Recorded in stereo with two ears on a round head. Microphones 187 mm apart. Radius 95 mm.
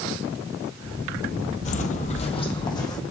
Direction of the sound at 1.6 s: 35° left (ahead or behind).